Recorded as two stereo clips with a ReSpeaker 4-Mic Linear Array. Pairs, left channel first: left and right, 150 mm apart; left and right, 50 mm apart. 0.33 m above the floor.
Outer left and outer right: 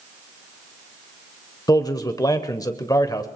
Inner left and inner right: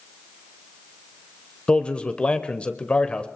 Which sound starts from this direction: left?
A man speaking, at 1.7 s.